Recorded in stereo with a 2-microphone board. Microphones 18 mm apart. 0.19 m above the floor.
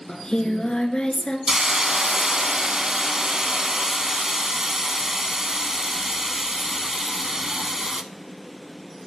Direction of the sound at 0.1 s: 45° left (ahead or behind).